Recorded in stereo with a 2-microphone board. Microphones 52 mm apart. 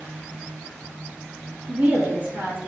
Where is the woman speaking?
30° right (ahead or behind), 1.2 m.